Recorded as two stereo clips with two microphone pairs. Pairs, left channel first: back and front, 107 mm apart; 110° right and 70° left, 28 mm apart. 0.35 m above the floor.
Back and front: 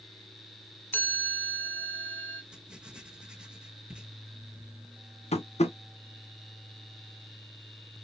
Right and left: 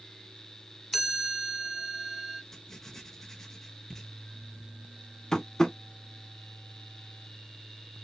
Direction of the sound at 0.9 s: 165° left.